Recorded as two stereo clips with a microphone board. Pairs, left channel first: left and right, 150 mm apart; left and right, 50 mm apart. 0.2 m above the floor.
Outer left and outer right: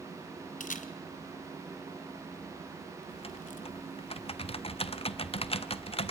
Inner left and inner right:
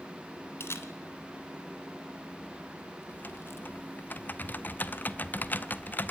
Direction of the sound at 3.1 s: 40° left (ahead or behind).